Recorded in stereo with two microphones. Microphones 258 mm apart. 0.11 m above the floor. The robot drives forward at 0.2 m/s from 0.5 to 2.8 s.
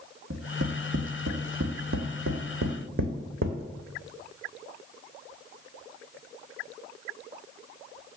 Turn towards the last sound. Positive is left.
turn(degrees=-50)  # may be behind; listen again after turning